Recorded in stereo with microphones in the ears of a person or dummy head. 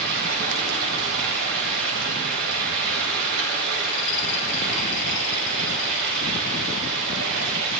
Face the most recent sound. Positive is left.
turn(degrees=-70)  # may be behind; listen again after turning